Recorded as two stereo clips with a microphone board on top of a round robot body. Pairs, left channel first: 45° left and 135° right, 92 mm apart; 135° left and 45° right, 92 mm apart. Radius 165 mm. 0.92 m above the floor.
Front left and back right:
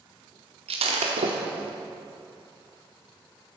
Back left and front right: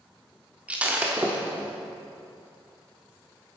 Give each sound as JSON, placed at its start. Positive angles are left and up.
{"t": 0.7, "sound": "breaking glass", "azimuth_deg": -120, "distance_m": 1.1}